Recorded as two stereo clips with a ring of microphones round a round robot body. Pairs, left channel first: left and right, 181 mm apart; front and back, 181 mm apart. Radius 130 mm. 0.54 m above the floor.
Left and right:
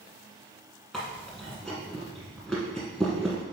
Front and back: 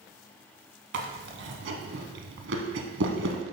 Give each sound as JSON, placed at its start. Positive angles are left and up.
{"t": 0.9, "sound": "chewing", "azimuth_deg": 180, "distance_m": 0.9}